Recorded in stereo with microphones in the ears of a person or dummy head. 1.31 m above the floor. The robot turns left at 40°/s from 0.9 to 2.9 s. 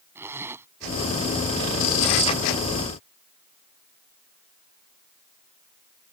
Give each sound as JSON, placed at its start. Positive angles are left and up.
{"t": 0.1, "sound": "a zipper", "side_deg": -15}